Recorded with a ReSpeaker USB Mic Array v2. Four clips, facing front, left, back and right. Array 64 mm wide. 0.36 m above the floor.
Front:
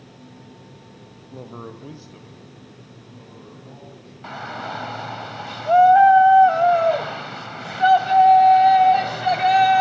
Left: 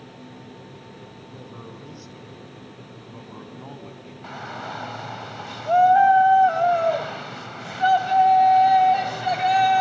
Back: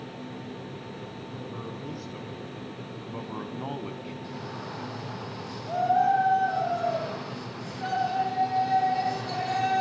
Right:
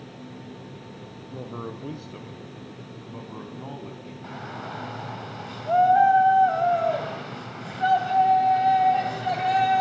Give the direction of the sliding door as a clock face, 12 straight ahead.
No sliding door in this recording.